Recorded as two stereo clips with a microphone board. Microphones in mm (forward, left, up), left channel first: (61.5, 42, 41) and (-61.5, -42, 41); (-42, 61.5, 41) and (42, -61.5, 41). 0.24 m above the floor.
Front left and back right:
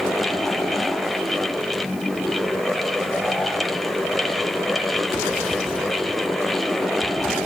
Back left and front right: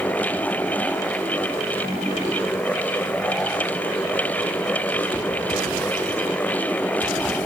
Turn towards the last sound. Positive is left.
No sound to turn to.